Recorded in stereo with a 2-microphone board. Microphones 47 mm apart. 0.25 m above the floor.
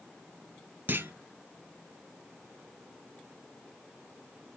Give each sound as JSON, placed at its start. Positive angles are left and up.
{"t": 0.9, "sound": "a clunk", "side_deg": -50, "distance_m": 0.6}